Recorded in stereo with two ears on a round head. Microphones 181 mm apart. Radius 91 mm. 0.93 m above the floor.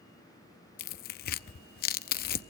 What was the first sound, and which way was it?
Tearing paper, 50° left (ahead or behind).